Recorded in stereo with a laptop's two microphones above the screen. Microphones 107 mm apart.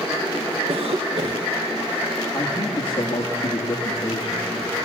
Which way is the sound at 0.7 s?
65° right (ahead or behind).